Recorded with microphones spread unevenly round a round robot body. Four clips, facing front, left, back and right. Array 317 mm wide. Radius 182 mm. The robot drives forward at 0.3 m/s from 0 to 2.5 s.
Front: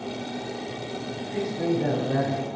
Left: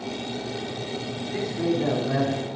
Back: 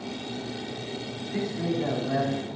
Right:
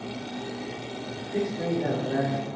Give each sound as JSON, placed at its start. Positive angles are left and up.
{"t": 1.3, "sound": "a man speaking", "azimuth_deg": 115, "distance_m": 5.0}